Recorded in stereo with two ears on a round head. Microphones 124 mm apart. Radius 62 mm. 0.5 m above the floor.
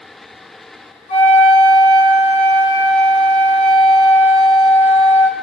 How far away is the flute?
About 3.5 m.